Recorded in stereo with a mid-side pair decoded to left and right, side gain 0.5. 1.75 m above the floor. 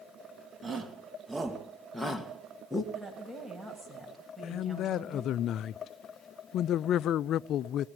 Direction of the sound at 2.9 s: 5° right.